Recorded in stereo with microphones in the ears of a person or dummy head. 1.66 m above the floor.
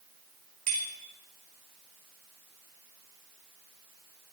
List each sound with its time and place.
0.7 s a bicycle bell: 50° right (ahead or behind), 4.5 m